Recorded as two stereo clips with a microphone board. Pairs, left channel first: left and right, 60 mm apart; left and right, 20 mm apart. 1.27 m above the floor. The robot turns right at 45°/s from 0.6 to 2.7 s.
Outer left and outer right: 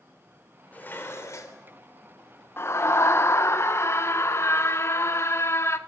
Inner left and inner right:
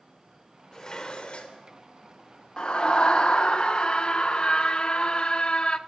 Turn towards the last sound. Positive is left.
turn(degrees=45)  # may be behind; listen again after turning